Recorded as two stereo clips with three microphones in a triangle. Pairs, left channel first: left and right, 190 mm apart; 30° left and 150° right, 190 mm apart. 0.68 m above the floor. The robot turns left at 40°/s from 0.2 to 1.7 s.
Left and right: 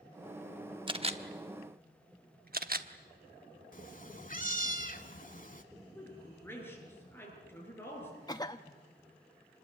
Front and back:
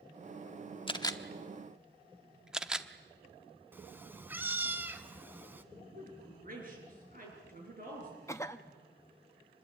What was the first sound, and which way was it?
A camera shutter, 30° right.